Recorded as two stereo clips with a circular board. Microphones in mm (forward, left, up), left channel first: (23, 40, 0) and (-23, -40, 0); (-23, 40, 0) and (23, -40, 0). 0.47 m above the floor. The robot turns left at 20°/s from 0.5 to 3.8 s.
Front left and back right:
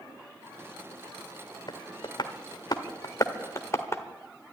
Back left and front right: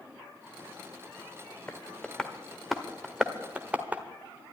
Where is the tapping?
50° left, 1.3 m; by 4.0 s 10° left, 1.3 m.